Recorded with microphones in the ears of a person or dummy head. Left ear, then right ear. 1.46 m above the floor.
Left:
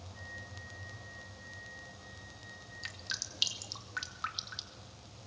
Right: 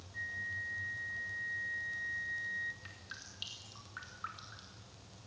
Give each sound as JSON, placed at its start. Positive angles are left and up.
{"t": 0.1, "sound": "a flute", "side_deg": -55, "distance_m": 2.0}
{"t": 2.8, "sound": "dripping", "side_deg": 35, "distance_m": 2.5}